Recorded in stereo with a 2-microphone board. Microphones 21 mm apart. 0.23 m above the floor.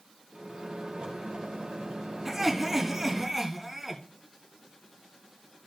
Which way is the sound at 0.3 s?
55° right (ahead or behind).